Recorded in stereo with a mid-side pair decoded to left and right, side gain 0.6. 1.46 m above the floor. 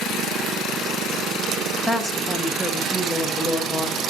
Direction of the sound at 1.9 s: Straight ahead.